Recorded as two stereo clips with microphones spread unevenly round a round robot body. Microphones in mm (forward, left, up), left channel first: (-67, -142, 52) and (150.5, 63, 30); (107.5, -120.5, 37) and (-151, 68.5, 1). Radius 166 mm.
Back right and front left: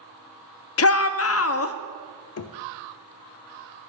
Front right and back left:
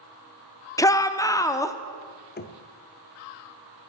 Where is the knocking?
100° right, 0.9 m.